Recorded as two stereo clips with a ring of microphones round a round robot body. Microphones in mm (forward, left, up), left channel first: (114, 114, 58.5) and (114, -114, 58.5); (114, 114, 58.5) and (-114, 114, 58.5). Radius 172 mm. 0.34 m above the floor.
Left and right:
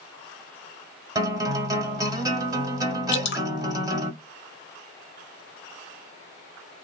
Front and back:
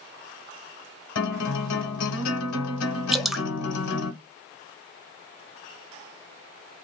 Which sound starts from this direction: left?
Dripping, at 3.1 s.